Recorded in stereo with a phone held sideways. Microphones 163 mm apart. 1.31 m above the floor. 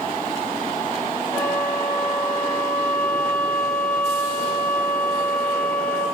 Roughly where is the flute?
Centre.